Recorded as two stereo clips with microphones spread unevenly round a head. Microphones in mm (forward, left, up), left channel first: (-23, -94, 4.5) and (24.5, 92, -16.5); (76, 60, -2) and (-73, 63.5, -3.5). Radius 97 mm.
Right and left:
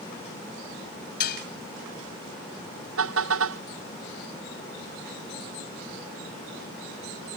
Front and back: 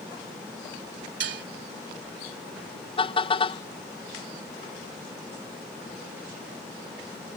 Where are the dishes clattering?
145° right.